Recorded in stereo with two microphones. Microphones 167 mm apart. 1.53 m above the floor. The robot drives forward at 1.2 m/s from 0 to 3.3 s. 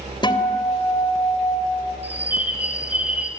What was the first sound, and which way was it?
A guitar, 25° left (ahead or behind).